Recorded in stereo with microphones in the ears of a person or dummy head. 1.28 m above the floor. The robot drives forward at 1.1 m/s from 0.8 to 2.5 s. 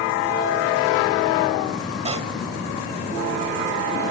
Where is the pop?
35° right (ahead or behind); by 2.3 s 30° right (ahead or behind).